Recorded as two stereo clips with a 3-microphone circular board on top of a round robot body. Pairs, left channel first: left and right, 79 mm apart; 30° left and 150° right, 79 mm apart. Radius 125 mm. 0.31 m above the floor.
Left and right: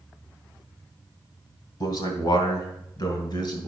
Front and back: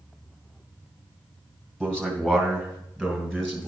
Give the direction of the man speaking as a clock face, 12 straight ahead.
8 o'clock.